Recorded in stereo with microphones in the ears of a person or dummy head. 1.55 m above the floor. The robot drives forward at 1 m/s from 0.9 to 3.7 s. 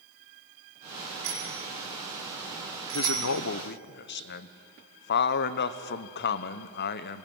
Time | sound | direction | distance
1.2 | a bicycle bell | 75° right (ahead or behind) | 8 m
2.9 | a man speaking | 70° left (ahead or behind) | 0.8 m